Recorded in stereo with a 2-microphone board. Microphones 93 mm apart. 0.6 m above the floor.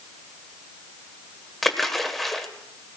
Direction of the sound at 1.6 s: 5° left (ahead or behind).